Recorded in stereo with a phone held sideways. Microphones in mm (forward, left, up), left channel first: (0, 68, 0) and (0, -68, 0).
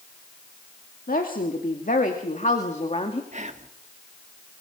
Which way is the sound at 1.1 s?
75° left (ahead or behind).